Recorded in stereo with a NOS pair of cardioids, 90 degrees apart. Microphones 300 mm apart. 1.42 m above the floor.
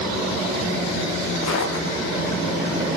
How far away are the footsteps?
About 7.5 m.